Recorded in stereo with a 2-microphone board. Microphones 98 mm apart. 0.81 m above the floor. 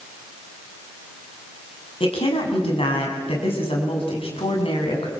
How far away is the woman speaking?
About 6.5 m.